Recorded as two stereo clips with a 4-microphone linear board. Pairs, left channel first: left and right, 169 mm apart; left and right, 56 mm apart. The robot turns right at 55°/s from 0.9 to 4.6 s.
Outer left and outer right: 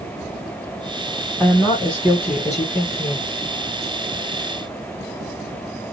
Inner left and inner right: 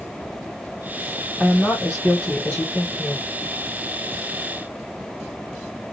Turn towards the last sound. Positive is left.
turn(degrees=-170)